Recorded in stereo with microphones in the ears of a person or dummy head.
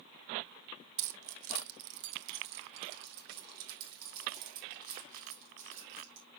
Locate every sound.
1.0 s keys jangling: 65° right (ahead or behind), 0.9 m; by 6.2 s 45° right (ahead or behind), 3.5 m